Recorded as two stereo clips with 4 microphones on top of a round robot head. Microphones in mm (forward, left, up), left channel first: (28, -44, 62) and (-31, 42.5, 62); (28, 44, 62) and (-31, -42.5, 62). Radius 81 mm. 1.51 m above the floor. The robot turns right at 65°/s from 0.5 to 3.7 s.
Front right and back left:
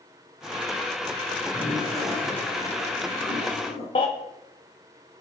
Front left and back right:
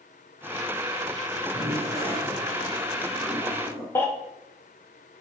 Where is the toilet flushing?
175° right, 4 m; by 3.9 s 35° right, 4 m.